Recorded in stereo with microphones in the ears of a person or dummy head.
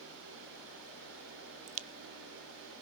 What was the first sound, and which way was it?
A crack, 35° right (ahead or behind).